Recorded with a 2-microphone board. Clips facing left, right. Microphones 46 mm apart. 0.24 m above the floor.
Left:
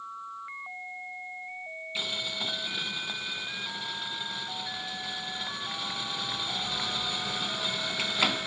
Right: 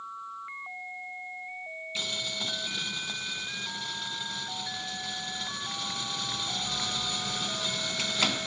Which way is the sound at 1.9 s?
15° left (ahead or behind).